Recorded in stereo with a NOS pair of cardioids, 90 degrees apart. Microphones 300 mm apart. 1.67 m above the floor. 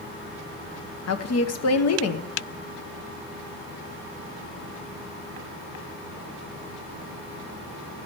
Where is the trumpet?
No trumpet in this recording.